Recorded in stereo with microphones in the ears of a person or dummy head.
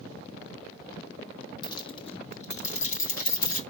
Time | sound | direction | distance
1.6 | keys jangling | 25° left (ahead or behind) | 1.3 m